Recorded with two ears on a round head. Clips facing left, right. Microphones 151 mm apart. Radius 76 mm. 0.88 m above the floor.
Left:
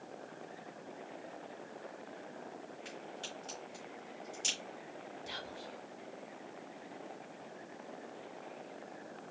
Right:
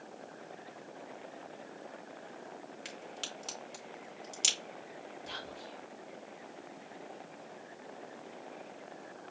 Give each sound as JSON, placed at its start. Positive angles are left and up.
{"t": 2.9, "sound": "a crack", "side_deg": -80, "distance_m": 2.5}
{"t": 5.3, "sound": "whispering", "side_deg": 10, "distance_m": 0.8}